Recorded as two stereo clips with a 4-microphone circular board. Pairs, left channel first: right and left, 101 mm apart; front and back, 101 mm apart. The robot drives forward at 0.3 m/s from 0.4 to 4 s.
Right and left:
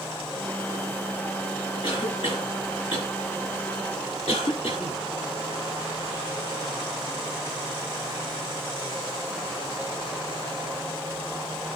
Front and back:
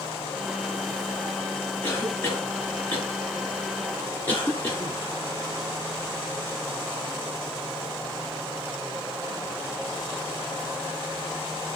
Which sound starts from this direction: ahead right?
A cough, at 1.8 s.